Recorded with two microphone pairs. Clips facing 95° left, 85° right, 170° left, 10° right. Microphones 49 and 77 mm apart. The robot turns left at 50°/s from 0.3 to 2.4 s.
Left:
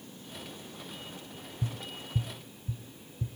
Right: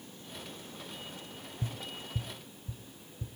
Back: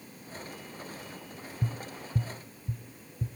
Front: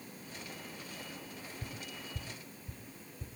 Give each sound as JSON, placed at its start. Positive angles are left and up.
{"t": 1.6, "sound": "tapping", "azimuth_deg": -165, "distance_m": 0.8}